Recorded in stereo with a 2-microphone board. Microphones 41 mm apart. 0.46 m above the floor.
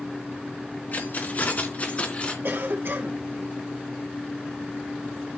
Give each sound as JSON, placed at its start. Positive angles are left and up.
{"t": 0.9, "sound": "keys jangling", "side_deg": 50, "distance_m": 3.5}
{"t": 2.4, "sound": "a cough", "side_deg": -50, "distance_m": 3.0}